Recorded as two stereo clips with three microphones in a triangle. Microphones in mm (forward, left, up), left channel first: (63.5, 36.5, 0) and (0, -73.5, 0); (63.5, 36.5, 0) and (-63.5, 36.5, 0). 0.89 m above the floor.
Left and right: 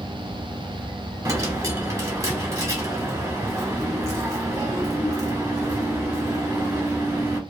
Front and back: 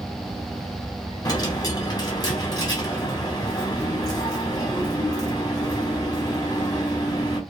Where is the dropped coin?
60° right, 1.0 m.